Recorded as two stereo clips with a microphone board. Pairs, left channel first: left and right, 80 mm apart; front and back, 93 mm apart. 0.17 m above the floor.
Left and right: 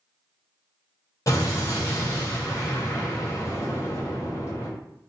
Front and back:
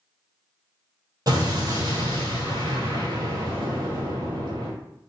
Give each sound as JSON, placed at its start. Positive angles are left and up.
{"t": 1.3, "sound": "an explosion", "azimuth_deg": 135, "distance_m": 1.4}